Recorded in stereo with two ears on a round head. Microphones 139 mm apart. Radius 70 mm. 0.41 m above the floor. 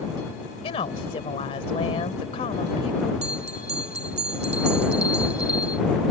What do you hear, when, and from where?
0.6 s a woman speaking: 40° left (ahead or behind)
3.2 s a bell: 45° right (ahead or behind)